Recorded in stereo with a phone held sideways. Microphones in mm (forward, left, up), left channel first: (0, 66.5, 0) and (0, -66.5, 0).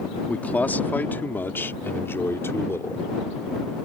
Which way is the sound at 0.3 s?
10° left (ahead or behind).